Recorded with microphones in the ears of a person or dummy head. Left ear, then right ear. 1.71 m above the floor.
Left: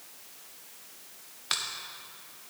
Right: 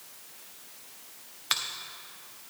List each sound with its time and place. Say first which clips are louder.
1.5 s a finger snap: right 2 dB; 10° right (ahead or behind), 0.6 m